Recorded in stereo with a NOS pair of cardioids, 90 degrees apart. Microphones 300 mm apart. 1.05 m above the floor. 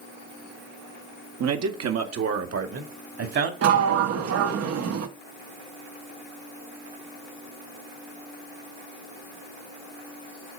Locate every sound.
1.4 s a man speaking: 65° right, 1.3 m; by 3.5 s 50° right, 2.5 m
3.6 s a sliding door: 60° right, 1.0 m